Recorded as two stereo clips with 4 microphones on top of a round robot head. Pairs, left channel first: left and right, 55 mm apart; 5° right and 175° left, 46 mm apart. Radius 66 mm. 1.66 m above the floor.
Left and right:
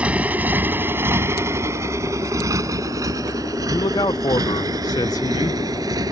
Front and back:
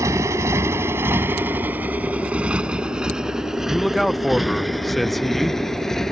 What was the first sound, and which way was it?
A motorcycle, 155° right.